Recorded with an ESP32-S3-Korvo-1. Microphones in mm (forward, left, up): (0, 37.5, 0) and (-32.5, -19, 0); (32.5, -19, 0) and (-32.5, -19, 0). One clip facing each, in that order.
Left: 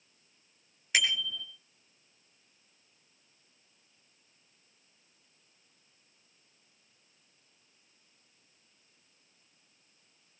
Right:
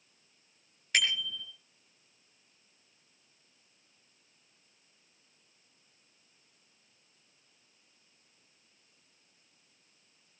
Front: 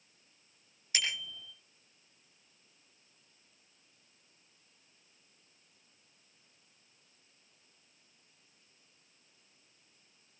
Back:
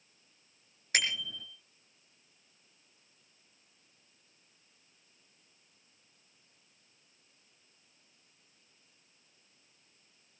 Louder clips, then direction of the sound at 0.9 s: Left 1 dB, back 4 dB; 145° left.